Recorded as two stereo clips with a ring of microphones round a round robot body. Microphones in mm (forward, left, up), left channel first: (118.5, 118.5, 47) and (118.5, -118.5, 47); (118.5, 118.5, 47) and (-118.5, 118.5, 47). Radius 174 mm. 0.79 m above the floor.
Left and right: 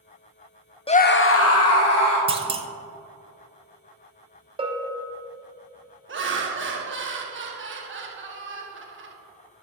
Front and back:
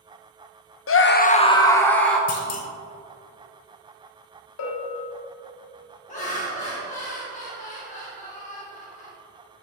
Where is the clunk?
25° right, 0.8 m.